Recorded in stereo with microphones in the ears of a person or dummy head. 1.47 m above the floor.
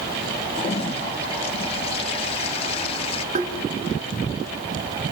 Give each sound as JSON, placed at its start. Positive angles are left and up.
{"t": 0.5, "sound": "a toilet flushing", "side_deg": 30, "distance_m": 1.5}
{"t": 3.4, "sound": "tapping", "side_deg": -50, "distance_m": 1.6}